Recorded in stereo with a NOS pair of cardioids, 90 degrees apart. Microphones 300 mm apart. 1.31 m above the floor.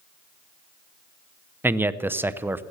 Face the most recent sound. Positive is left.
turn(degrees=-5)